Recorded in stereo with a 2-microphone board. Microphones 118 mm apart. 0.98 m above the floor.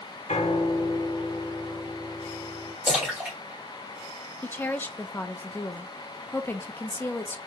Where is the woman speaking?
15° left (ahead or behind), 0.6 m.